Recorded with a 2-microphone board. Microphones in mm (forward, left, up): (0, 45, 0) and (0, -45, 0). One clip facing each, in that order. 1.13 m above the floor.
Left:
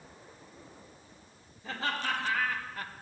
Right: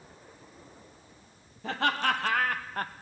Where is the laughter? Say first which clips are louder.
Right 6 dB; 65° right (ahead or behind), 1.3 m; by 2.9 s 40° right (ahead or behind), 0.5 m.